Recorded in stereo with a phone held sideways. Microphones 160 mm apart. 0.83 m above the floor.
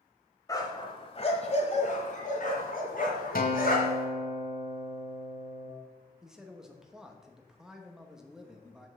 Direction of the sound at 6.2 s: 5° right (ahead or behind).